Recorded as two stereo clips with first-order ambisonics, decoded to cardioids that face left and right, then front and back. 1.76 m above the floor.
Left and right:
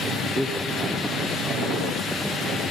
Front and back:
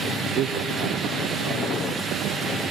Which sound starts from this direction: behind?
A man speaking, at 0.2 s.